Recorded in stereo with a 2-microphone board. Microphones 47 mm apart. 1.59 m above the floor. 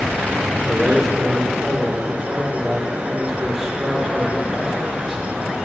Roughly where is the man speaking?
Centre.